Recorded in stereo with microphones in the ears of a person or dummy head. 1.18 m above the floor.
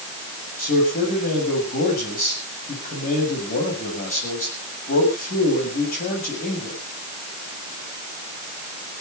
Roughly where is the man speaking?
Left.